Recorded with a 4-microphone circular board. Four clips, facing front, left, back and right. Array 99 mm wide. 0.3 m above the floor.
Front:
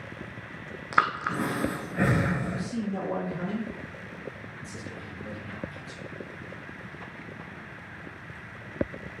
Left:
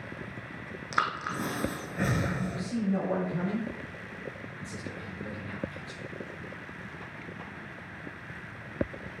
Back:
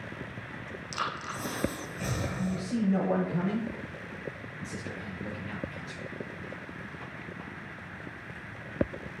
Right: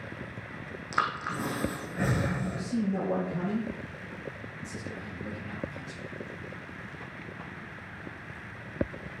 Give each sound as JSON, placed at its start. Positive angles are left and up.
{"t": 0.9, "sound": "breathing", "azimuth_deg": 5, "distance_m": 0.9}
{"t": 2.4, "sound": "a man speaking", "azimuth_deg": 155, "distance_m": 4.0}